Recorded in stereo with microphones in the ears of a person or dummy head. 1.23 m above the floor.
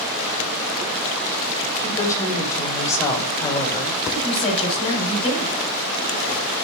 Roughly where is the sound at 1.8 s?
Centre.